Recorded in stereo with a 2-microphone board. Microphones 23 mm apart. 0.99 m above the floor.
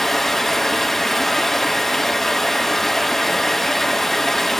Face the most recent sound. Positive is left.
turn(degrees=15)  # may be behind; listen again after turning